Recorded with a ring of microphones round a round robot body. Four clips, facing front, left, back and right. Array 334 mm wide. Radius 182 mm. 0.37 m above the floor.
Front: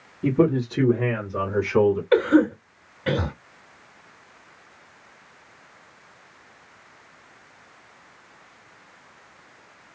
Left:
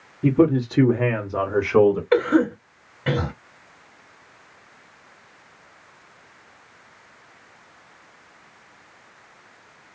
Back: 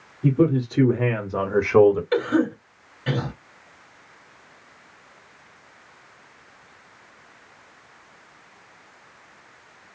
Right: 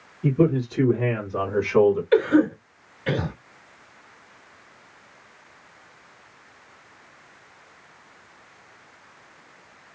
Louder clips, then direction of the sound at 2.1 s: Even, front 4 dB; 60° left.